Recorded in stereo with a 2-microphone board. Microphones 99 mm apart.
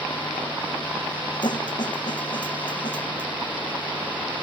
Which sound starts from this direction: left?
A snare drum, at 1.4 s.